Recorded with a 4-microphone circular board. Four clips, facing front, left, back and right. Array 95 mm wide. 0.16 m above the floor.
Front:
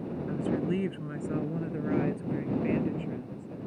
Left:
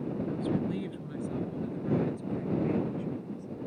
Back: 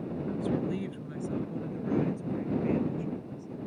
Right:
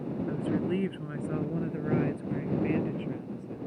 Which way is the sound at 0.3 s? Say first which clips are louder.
Right 3 dB, front 1 dB; 50° right.